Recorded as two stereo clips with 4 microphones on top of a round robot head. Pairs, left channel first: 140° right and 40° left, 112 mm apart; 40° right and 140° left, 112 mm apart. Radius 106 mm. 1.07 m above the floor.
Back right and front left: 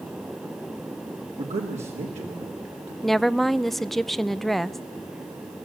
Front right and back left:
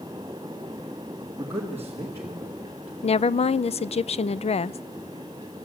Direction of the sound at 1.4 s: 65° left.